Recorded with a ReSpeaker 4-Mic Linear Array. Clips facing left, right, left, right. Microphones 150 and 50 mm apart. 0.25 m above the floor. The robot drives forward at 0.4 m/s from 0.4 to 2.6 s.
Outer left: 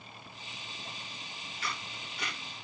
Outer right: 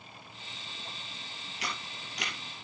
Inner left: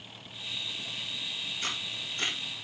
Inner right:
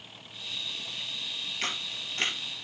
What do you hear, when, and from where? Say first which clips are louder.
1.6 s a camera shutter: outer right 1 dB, inner right 3 dB; 80° right, 3 m